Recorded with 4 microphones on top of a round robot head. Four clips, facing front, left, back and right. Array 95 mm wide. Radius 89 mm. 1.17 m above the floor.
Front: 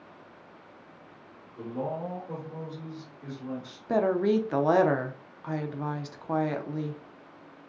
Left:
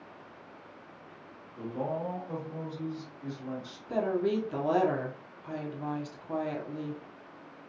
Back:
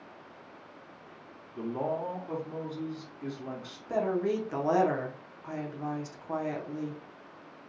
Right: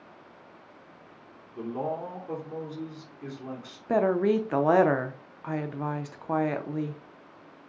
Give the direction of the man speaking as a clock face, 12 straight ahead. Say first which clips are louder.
Right 2 dB, back 1 dB; 4 o'clock.